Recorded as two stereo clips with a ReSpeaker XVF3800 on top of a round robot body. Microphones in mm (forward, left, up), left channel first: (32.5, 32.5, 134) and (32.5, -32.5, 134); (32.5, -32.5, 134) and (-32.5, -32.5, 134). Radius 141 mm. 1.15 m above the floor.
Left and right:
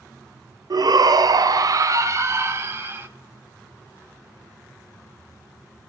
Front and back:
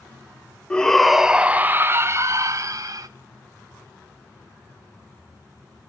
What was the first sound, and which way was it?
A shout, 75° right.